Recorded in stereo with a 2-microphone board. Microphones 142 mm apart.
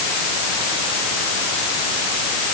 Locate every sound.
Only background noise.